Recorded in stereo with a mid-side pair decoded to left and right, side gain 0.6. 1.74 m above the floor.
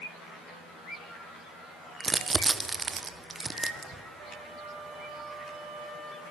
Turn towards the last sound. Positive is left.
turn(degrees=-50)